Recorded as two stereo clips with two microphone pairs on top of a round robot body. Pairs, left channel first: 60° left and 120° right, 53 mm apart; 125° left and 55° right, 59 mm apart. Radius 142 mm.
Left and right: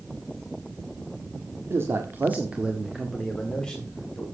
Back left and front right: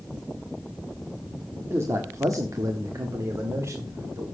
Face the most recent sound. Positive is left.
turn(degrees=-15)